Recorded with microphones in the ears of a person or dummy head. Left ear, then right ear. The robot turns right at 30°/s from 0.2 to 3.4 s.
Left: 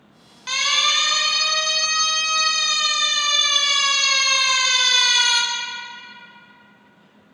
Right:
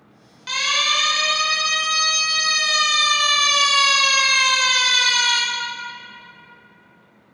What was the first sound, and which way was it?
A siren, 25° left (ahead or behind).